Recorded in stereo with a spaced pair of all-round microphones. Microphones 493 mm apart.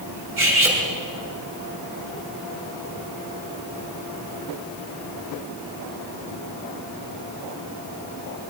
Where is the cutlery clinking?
85° right, 5 m.